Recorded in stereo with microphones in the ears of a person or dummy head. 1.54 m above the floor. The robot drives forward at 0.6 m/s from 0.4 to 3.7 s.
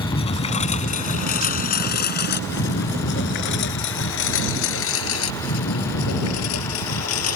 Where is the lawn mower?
25° left (ahead or behind); by 7.4 s 85° left.